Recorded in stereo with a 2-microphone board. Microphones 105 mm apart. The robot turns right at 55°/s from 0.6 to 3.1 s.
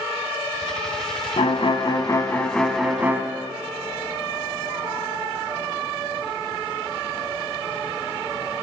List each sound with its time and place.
1.4 s a violin: 105° left, 0.5 m; by 3.2 s 160° right, 0.5 m